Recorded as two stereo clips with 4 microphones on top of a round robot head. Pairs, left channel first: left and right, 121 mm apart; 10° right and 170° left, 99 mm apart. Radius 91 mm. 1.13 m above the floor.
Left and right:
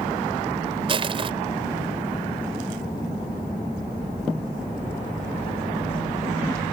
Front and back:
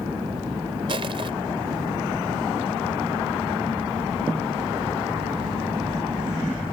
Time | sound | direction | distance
0.9 | crushing | 135° right | ?